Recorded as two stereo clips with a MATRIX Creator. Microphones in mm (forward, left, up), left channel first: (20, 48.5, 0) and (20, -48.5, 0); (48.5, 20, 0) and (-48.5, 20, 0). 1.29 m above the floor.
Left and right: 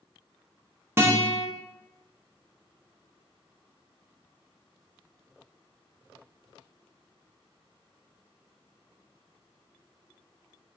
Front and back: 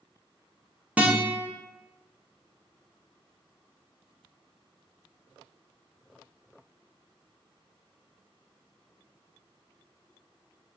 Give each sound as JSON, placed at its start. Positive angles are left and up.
{"t": 1.0, "sound": "a guitar", "azimuth_deg": -120, "distance_m": 0.5}